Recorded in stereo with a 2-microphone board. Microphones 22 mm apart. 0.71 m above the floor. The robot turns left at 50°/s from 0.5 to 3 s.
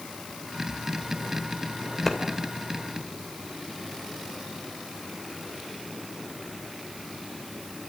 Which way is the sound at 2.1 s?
10° left (ahead or behind).